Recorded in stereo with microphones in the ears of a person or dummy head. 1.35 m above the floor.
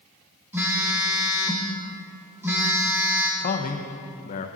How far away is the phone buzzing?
About 1.1 m.